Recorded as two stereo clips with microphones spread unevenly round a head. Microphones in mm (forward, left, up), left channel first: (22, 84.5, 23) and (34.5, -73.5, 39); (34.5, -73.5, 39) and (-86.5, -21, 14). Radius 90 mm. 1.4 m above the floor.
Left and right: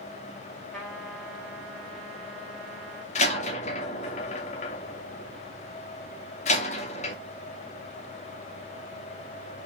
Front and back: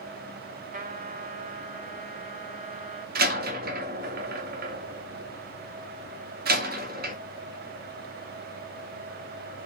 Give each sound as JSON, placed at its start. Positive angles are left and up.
{"t": 0.7, "sound": "a trumpet", "azimuth_deg": 180, "distance_m": 4.0}
{"t": 3.1, "sound": "a door slam", "azimuth_deg": 150, "distance_m": 2.5}